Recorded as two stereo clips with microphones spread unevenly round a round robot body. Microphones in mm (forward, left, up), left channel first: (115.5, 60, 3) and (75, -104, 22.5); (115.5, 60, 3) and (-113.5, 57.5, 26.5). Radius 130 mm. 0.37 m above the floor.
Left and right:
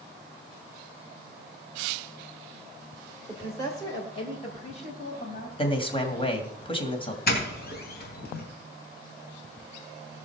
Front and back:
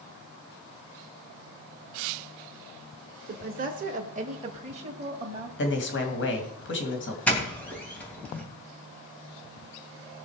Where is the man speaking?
25° left, 2.5 m.